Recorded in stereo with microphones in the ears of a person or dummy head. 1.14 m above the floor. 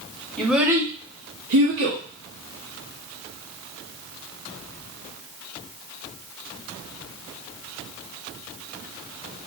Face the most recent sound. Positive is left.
turn(degrees=-65)  # may be behind; listen again after turning